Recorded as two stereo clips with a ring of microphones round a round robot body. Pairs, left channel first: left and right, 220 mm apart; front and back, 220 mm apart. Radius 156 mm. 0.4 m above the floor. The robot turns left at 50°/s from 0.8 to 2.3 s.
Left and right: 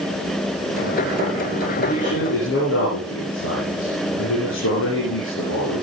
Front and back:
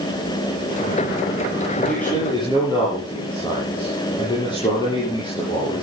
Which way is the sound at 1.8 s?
95° left.